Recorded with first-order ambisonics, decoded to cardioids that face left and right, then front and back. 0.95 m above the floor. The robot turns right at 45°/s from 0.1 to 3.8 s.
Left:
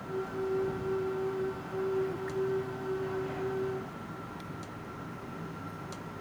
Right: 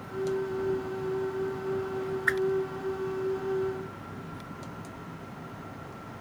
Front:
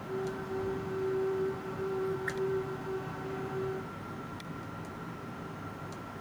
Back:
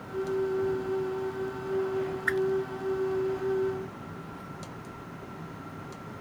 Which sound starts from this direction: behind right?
A whoosh, at 2.3 s.